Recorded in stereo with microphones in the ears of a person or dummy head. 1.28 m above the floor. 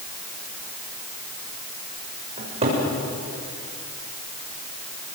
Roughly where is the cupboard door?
Right.